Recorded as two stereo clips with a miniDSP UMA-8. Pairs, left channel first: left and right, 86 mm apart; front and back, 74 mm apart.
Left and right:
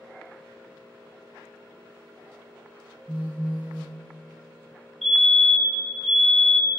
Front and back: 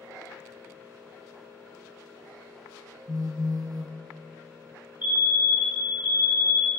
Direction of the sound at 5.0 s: 175° left.